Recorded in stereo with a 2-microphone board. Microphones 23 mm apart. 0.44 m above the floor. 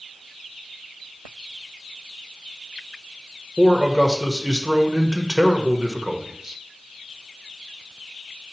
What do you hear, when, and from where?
3.6 s a man speaking: 30° right (ahead or behind), 1.1 m